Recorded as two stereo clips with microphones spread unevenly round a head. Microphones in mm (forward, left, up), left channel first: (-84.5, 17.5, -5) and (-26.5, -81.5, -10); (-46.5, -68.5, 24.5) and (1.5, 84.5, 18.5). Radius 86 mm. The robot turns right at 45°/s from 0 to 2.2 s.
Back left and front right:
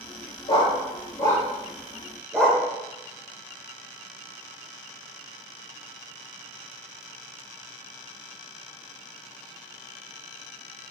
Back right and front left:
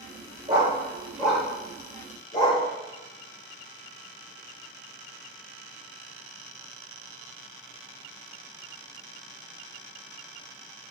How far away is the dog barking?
About 1.4 m.